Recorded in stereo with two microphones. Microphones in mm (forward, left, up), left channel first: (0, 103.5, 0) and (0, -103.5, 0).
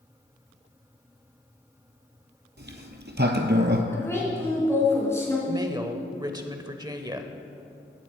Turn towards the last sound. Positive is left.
turn(degrees=-20)  # may be behind; listen again after turning